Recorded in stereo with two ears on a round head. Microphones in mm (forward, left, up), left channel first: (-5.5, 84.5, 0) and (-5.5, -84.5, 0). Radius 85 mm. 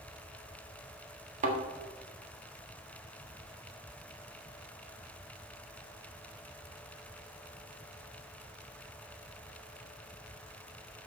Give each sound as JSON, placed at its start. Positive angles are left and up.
{"t": 1.4, "sound": "a thud", "side_deg": -40, "distance_m": 1.5}